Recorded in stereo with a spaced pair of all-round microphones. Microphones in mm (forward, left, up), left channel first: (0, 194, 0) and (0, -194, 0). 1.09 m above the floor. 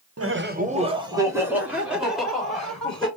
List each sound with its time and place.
0.2 s laughter: 40° right (ahead or behind), 0.7 m; by 3.1 s centre (ahead or behind), 3.5 m